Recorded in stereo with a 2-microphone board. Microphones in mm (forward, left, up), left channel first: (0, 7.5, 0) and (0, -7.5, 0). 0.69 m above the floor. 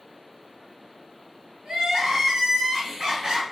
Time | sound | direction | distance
1.6 | crying | 65° right (ahead or behind) | 3.5 m